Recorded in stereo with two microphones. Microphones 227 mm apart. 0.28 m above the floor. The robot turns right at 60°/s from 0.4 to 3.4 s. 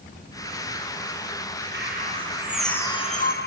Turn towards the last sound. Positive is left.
turn(degrees=50)